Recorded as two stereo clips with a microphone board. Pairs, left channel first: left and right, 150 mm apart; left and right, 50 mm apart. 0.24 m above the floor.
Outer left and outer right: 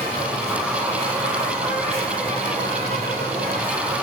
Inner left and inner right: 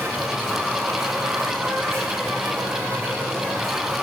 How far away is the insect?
About 10 m.